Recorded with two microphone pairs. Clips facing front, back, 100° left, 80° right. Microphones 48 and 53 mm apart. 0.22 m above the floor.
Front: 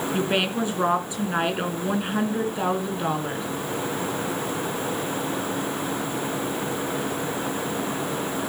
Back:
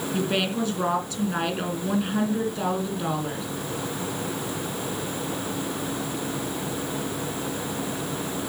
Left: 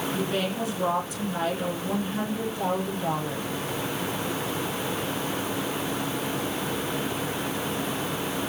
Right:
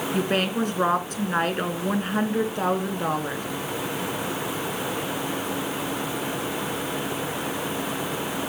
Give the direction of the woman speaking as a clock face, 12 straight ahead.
2 o'clock.